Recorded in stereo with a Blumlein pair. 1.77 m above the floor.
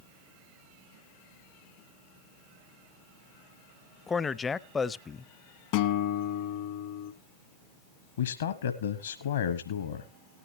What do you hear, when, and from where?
4.1 s a man speaking: 15° left, 0.5 m
5.7 s a guitar: 45° left, 0.9 m
8.2 s a man speaking: 60° left, 1.1 m